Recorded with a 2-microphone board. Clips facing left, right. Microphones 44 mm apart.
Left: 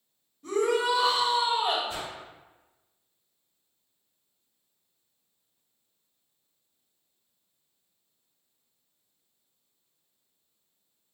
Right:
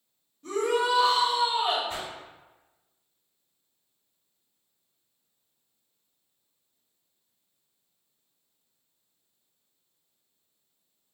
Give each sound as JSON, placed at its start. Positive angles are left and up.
{"t": 0.4, "sound": "a shout", "side_deg": 10, "distance_m": 1.6}
{"t": 1.9, "sound": "a whoosh", "side_deg": -50, "distance_m": 0.9}